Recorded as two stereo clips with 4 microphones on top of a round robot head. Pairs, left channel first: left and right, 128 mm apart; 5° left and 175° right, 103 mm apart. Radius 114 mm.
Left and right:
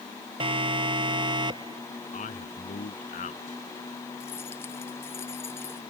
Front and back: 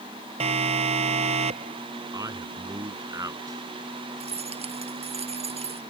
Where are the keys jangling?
165° left.